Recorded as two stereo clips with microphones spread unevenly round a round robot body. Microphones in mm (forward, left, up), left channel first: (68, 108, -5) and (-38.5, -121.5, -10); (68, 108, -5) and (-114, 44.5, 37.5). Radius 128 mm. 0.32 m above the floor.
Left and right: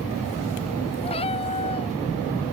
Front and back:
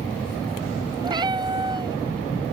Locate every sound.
1.0 s a cat meowing: 135° left